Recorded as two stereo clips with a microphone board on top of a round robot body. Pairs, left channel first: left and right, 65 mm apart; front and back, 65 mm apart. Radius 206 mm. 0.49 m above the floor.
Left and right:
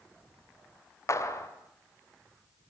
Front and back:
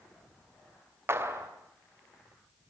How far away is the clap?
About 2.5 m.